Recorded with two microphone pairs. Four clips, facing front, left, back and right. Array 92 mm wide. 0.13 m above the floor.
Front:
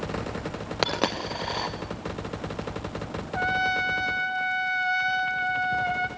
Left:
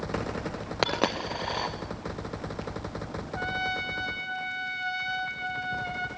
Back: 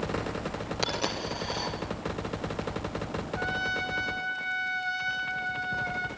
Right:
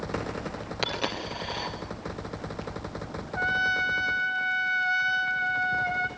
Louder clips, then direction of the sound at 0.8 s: Left 5 dB, front 6 dB; 45° left.